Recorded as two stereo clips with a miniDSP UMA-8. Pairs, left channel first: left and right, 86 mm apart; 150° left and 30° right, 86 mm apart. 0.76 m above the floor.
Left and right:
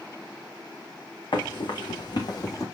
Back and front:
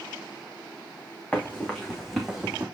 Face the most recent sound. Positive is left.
turn(degrees=45)